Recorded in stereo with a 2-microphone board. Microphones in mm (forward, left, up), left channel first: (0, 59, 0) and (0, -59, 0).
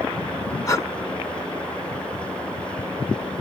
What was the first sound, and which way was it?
Breathing, 30° left (ahead or behind).